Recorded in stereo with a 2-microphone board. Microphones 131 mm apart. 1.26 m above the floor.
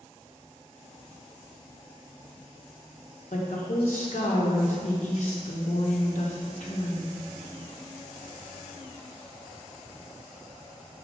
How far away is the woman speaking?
About 1.3 m.